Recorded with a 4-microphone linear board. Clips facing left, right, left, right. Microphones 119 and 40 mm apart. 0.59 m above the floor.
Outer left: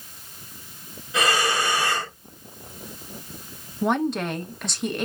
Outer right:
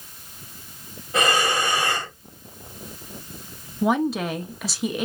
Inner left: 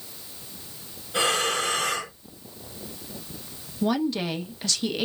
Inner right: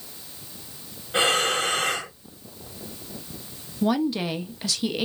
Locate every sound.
1.1 s breathing: 50° right (ahead or behind), 1.8 m
3.8 s a woman speaking: 5° right (ahead or behind), 0.6 m